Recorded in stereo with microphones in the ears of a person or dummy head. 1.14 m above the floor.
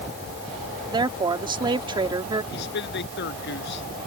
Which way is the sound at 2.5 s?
65° left (ahead or behind).